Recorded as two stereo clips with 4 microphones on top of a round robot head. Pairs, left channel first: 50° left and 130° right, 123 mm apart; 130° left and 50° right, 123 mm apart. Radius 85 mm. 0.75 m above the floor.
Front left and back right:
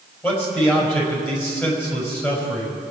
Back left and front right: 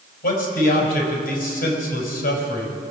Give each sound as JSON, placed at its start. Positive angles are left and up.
{"t": 0.2, "sound": "a man speaking", "azimuth_deg": 125, "distance_m": 4.5}